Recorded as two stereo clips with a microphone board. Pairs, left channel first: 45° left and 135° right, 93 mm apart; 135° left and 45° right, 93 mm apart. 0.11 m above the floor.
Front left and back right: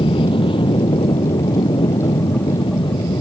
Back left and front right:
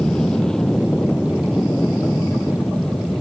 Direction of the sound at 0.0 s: 55° left.